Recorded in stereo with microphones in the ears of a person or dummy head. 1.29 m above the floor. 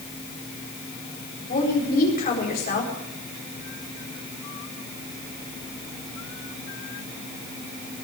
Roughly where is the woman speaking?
Left.